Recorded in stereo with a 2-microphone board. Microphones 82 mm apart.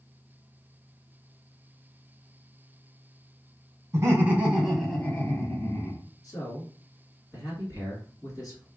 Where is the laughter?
35° right (ahead or behind), 1.3 m; by 6.0 s 50° left (ahead or behind), 1.4 m.